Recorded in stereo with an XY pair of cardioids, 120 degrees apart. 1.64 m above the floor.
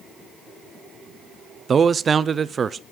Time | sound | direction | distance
1.7 | a man speaking | 35° right | 0.6 m